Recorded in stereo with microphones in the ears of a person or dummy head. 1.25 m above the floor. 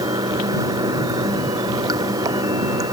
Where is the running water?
30° right (ahead or behind).